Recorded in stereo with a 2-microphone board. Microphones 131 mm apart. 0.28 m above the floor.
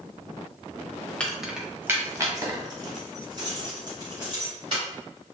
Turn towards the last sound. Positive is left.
turn(degrees=-40)  # may be behind; listen again after turning